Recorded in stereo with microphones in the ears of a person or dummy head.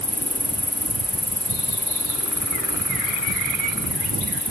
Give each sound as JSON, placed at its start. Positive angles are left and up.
{"t": 0.0, "sound": "an insect", "side_deg": 5}